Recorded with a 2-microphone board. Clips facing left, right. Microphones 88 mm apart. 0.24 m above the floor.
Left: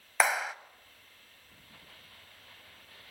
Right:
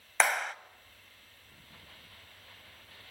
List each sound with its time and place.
0.2 s a clap: 5° left (ahead or behind), 0.8 m